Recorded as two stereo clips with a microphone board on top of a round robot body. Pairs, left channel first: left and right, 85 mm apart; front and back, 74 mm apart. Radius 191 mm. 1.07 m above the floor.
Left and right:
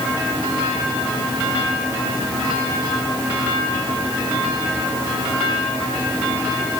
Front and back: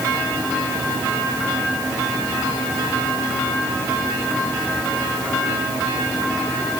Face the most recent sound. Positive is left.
No sound to turn to.